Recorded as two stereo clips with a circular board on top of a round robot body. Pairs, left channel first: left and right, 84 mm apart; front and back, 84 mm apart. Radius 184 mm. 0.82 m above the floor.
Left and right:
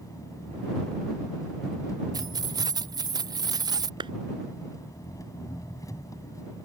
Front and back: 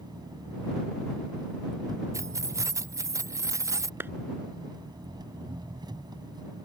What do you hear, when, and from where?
0.0 s an engine running: 140° left
2.1 s keys jangling: 130° right
4.0 s a clap: 115° right